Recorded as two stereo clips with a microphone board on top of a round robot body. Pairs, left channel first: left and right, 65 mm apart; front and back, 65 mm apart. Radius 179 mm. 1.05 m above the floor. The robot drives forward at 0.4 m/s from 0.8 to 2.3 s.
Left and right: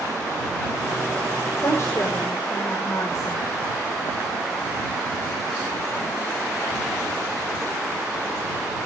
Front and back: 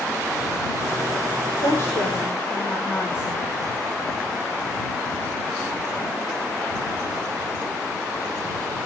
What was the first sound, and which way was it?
A woman speaking, 40° left.